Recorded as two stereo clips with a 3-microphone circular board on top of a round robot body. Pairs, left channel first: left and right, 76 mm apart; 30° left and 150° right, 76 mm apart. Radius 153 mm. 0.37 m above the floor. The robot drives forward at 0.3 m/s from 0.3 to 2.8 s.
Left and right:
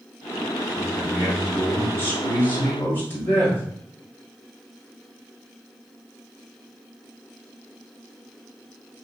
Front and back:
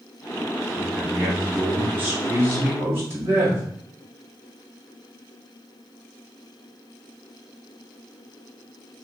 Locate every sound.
0.8 s a man speaking: 140° left, 1.6 m; by 3.6 s 150° left, 2 m